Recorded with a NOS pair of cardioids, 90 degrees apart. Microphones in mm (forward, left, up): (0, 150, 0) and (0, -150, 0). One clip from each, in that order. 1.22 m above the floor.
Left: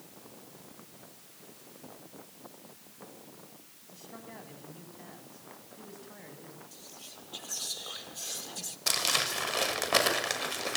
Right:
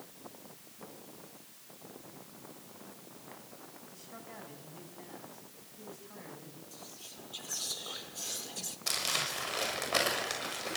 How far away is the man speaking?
About 9 m.